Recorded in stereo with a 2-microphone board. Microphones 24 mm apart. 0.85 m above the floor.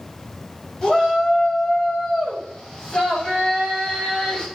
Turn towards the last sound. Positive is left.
turn(degrees=35)  # may be behind; listen again after turning